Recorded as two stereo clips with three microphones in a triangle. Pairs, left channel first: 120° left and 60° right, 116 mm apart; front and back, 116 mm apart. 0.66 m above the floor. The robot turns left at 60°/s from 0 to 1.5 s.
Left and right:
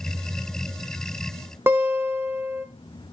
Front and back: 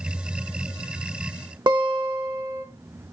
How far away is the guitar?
About 0.8 m.